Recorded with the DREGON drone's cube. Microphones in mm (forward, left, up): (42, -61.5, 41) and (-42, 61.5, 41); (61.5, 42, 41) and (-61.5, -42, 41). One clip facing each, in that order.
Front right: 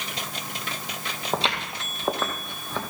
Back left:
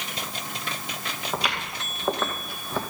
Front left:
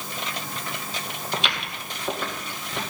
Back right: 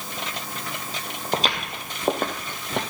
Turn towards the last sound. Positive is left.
turn(degrees=-160)